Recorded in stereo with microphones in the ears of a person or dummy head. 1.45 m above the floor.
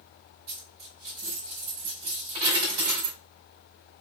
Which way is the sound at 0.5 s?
60° right (ahead or behind).